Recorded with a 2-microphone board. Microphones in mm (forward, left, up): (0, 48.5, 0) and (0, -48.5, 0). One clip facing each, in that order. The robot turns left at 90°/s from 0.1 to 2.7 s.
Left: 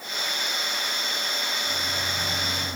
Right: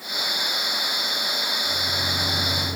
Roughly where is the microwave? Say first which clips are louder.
Right 2 dB; ahead.